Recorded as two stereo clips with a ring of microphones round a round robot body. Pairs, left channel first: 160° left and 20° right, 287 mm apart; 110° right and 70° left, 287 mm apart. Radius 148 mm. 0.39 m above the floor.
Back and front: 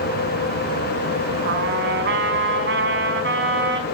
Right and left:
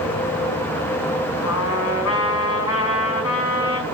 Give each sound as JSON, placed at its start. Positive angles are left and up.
{"t": 1.4, "sound": "a trumpet", "azimuth_deg": -70, "distance_m": 4.5}